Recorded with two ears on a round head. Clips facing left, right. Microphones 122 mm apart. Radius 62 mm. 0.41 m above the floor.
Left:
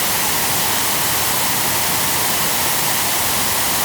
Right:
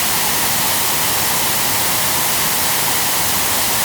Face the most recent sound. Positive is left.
No sound to turn to.